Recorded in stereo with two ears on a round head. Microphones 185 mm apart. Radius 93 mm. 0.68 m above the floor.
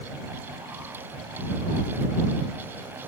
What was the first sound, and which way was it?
Only background noise.